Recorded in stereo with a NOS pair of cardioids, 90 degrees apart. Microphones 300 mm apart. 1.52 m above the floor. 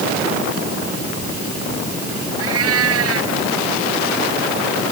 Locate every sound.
2.4 s a cat meowing: 50° right